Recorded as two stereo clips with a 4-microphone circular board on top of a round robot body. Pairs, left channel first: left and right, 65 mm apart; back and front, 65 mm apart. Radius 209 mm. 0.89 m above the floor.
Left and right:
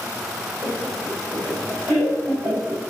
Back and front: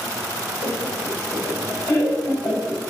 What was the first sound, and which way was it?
Laughter, 130° right.